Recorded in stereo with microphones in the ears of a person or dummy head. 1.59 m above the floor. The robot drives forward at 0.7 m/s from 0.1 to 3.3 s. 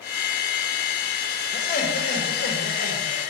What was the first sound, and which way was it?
Laughter, 50° left (ahead or behind).